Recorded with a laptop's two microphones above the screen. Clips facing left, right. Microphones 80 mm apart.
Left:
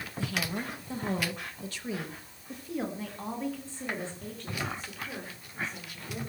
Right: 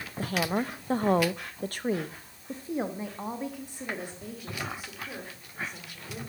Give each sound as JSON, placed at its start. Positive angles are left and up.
{"t": 0.2, "sound": "a woman speaking", "side_deg": -45, "distance_m": 1.2}